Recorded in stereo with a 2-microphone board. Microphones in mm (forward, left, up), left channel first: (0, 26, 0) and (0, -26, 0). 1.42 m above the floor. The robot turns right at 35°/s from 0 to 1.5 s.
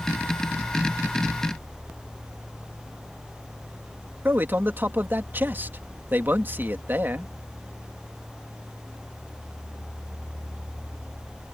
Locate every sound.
4.2 s a man speaking: 40° right (ahead or behind)